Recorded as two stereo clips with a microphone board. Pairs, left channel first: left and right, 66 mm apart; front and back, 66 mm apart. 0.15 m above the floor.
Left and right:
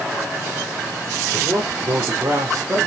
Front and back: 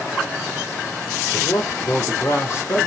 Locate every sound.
1.3 s a man speaking: 35° right, 6 m; by 2.9 s 55° right, 5 m